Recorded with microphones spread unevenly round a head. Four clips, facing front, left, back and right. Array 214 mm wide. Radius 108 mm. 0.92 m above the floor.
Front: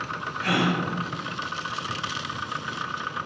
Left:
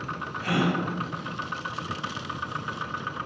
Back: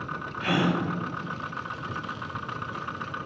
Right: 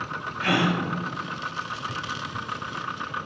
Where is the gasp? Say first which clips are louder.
Right 2 dB, front 1 dB; 70° right, 0.6 m.